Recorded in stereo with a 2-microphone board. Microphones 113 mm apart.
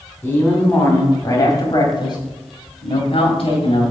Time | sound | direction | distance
0.2 | a man speaking | 15° left (ahead or behind) | 3 m